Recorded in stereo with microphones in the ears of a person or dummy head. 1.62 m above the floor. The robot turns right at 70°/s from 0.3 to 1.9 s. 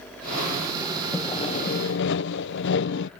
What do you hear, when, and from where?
1.1 s sawing: 10° left; by 3.1 s 60° left